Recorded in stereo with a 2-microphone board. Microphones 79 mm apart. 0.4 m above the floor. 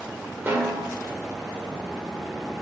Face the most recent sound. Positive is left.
turn(degrees=-25)  # may be behind; listen again after turning